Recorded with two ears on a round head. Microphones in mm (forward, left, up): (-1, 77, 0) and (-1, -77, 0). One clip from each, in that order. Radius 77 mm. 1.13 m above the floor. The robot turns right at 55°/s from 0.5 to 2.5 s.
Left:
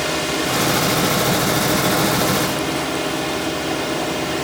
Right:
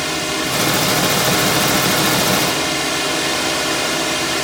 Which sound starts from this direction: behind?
A drone, at 0.0 s.